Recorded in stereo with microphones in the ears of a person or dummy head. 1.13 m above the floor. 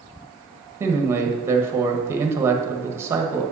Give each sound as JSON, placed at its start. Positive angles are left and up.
{"t": 0.8, "sound": "a man speaking", "side_deg": -15, "distance_m": 1.0}